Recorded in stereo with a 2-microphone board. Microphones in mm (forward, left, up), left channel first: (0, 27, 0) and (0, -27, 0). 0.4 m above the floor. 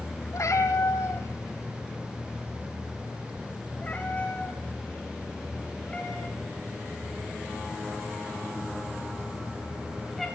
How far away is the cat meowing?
About 2.5 m.